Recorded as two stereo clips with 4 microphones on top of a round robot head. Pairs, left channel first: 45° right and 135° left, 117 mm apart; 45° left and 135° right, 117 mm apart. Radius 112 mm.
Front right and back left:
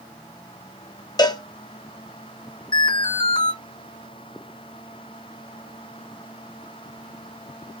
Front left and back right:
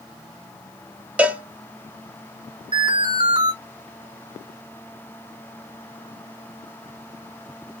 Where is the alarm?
90° right, 3.5 m.